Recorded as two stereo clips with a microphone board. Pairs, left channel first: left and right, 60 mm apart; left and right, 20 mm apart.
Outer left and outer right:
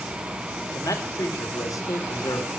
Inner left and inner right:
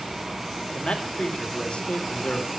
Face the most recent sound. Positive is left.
turn(degrees=75)  # may be behind; listen again after turning